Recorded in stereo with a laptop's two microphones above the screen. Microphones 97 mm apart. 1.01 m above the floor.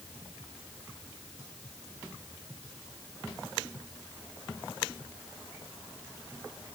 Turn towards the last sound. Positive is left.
No sound to turn to.